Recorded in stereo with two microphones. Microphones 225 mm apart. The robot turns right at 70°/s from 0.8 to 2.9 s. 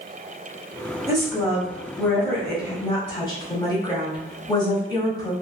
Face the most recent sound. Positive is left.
turn(degrees=20)  # may be behind; listen again after turning